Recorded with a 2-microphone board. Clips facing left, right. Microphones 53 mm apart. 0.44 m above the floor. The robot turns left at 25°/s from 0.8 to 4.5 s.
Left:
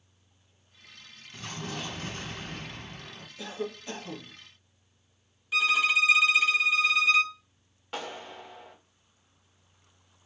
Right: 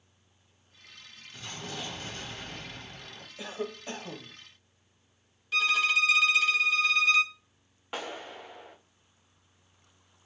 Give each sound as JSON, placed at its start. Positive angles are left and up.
{"t": 1.3, "sound": "an explosion", "azimuth_deg": 100, "distance_m": 1.6}
{"t": 3.4, "sound": "a cough", "side_deg": -20, "distance_m": 1.1}
{"t": 5.5, "sound": "a violin", "side_deg": 10, "distance_m": 0.8}
{"t": 7.9, "sound": "a clap", "side_deg": -15, "distance_m": 1.2}